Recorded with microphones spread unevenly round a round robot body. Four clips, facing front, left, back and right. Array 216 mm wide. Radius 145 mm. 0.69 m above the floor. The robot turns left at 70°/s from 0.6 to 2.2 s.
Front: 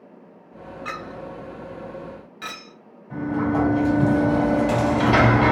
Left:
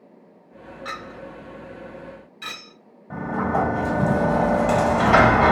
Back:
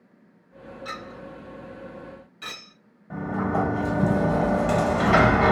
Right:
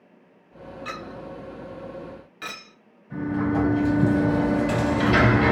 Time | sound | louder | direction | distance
0.8 | a clink | left 1 dB, front 4 dB | 45° left | 1.1 m
3.1 | a sliding door | left 1 dB, front 3 dB | 75° left | 1.3 m